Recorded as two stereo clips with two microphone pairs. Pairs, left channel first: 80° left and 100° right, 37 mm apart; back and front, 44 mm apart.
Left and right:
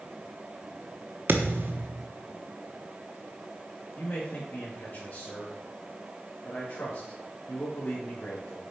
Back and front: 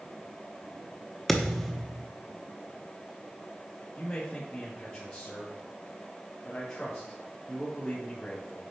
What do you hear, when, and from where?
1.3 s a thud: 90° right, 0.9 m
4.0 s a man speaking: 120° left, 2 m